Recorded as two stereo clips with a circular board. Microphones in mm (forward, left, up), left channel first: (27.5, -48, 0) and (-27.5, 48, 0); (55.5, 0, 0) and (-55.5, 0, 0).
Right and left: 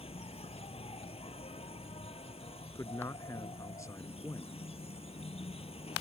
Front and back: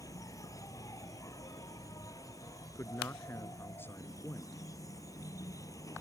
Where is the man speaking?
45° right.